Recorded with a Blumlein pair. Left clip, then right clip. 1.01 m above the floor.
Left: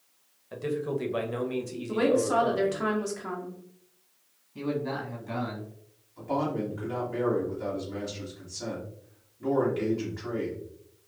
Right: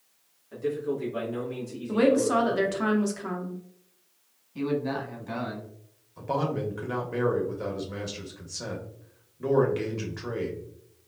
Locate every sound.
0.5 s a man speaking: 25° left, 0.8 m
1.9 s a woman speaking: 10° right, 0.8 m
4.5 s a man speaking: 5° right, 1.3 m
6.2 s a man speaking: 25° right, 1.0 m